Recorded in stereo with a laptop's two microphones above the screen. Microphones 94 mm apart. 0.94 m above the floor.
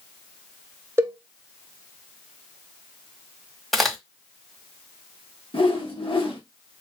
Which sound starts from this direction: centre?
A crack, at 3.7 s.